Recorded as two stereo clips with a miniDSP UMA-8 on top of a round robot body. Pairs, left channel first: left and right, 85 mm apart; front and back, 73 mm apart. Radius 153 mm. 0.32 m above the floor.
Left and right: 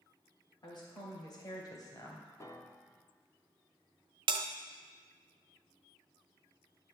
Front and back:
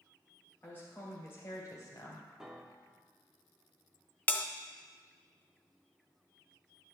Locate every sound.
0.6 s a woman speaking: 65° left, 2 m; by 2.3 s 35° left, 1.9 m
2.4 s a piano: 100° left, 1.1 m
4.3 s a bell: 70° right, 0.6 m